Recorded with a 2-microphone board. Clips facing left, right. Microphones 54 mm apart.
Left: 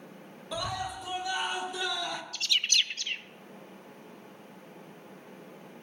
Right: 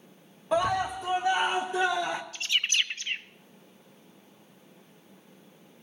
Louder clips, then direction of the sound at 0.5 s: Right 9 dB; 40° right (ahead or behind).